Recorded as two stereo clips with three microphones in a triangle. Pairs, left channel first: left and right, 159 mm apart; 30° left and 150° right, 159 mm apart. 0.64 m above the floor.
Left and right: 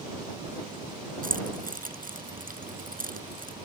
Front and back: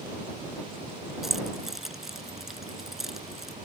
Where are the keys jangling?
60° right.